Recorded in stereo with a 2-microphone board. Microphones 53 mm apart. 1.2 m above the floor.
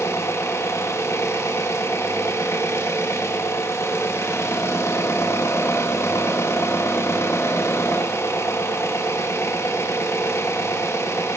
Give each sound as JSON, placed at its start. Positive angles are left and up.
{"t": 0.0, "sound": "an engine running", "side_deg": 65, "distance_m": 1.4}